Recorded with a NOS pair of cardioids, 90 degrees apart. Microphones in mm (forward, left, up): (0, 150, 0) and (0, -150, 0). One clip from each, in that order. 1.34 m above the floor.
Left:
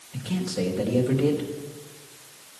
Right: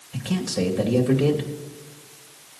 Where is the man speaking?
20° right, 2 m.